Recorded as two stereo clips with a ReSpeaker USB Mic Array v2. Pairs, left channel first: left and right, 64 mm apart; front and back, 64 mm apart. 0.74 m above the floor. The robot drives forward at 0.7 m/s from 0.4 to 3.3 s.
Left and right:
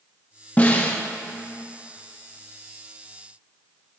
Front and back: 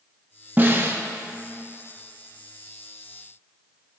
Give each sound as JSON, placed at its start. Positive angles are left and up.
{"t": 0.6, "sound": "a snare drum", "azimuth_deg": 140, "distance_m": 1.0}